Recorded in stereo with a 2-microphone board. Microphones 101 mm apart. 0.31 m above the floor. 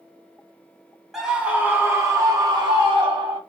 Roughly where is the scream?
Centre.